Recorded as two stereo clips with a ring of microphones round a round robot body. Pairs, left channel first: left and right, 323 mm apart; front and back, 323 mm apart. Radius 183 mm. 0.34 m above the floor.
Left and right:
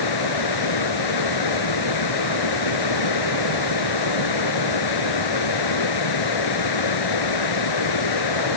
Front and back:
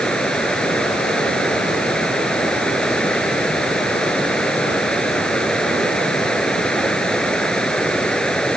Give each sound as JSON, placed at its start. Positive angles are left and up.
{"t": 0.0, "sound": "running water", "azimuth_deg": 90}